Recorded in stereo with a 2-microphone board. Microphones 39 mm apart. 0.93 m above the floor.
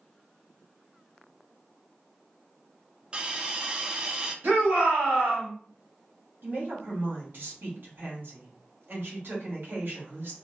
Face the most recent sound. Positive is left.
turn(degrees=-65)  # may be behind; listen again after turning